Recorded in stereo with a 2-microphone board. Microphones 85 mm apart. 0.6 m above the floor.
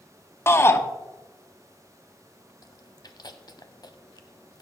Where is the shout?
30° left (ahead or behind), 0.9 m.